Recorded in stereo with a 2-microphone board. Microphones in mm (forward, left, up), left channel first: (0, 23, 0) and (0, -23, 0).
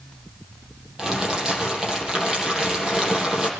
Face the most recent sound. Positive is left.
turn(degrees=-10)  # may be behind; listen again after turning